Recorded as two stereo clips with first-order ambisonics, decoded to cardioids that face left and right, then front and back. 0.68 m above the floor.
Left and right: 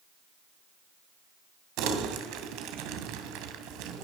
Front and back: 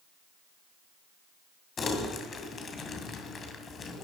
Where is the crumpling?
65° right, 2 m.